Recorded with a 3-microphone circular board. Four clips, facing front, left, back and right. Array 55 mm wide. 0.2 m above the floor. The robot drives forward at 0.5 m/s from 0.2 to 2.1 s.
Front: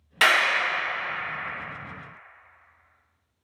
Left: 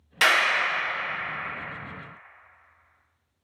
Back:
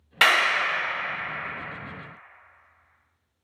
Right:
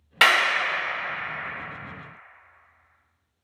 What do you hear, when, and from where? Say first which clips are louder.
0.2 s a clap: right 2 dB, even; 110° right, 0.9 m; by 0.6 s 130° right, 1.0 m